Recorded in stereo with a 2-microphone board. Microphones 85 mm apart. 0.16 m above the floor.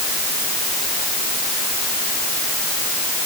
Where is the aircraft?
No aircraft in this recording.